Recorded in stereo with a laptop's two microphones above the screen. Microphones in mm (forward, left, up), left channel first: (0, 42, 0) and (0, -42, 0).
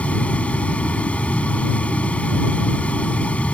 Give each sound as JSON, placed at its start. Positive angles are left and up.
{"t": 0.0, "sound": "a fan", "side_deg": 15}